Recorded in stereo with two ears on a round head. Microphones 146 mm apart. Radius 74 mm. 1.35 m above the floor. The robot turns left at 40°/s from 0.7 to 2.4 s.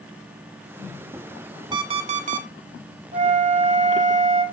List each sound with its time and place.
1.7 s an alarm clock: 25° right (ahead or behind), 1.1 m; by 2.5 s 50° right (ahead or behind), 1.1 m
3.1 s a flute: 45° right (ahead or behind), 1.4 m